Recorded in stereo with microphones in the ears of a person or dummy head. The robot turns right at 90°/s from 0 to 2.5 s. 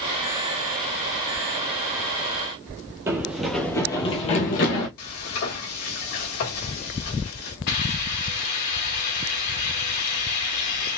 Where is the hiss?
55° left (ahead or behind), 2 m.